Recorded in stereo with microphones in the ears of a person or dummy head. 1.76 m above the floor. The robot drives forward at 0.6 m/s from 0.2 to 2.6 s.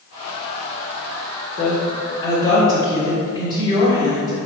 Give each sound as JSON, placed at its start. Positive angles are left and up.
{"t": 1.6, "sound": "a woman speaking", "side_deg": 40, "distance_m": 0.8}